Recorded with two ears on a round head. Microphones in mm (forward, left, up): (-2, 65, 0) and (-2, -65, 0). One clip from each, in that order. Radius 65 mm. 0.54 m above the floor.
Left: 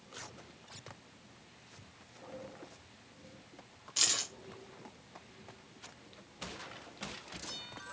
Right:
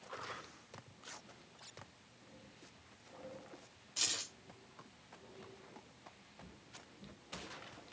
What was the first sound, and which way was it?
Keys jangling, 25° left (ahead or behind).